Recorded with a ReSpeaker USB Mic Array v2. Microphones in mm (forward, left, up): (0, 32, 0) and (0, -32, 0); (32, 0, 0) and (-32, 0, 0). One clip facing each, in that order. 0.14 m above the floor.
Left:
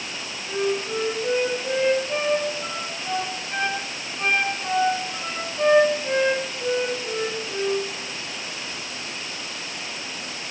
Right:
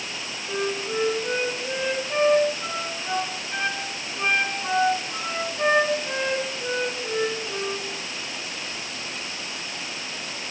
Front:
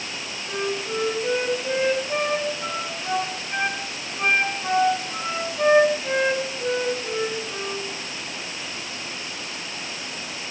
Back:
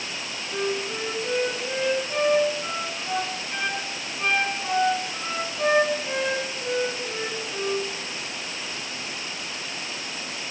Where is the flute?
20° right, 1.9 m.